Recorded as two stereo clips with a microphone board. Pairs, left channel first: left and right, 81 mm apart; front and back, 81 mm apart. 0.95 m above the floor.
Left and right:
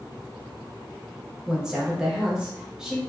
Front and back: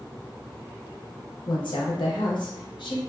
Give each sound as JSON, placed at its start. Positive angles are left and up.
{"t": 1.5, "sound": "a woman speaking", "azimuth_deg": -10, "distance_m": 0.8}